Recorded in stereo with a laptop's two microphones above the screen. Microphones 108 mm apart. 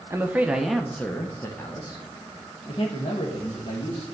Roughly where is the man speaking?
Right.